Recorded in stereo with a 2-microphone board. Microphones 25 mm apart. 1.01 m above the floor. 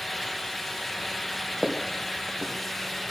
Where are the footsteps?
15° right (ahead or behind), 2.5 m.